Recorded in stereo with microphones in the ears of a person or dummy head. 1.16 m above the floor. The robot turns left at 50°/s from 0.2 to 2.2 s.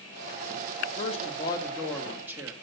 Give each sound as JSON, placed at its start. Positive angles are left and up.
{"t": 1.0, "sound": "a man speaking", "azimuth_deg": 50, "distance_m": 2.5}